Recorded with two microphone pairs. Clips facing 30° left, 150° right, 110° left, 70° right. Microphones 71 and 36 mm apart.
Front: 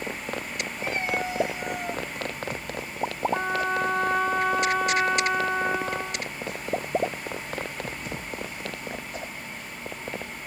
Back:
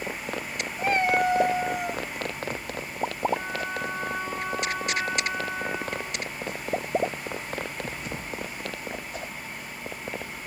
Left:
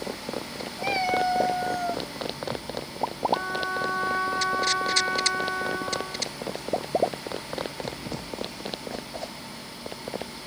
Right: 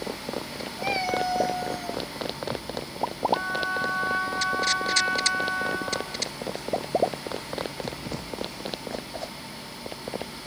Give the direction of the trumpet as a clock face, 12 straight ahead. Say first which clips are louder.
Front 4 dB, right 1 dB; 12 o'clock.